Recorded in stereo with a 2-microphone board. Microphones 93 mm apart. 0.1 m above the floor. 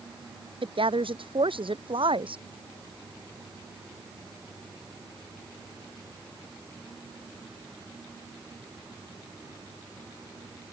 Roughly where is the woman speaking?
Right.